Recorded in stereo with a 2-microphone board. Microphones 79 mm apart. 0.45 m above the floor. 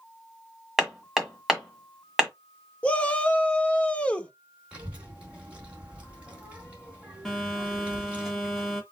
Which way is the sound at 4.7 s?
15° right (ahead or behind).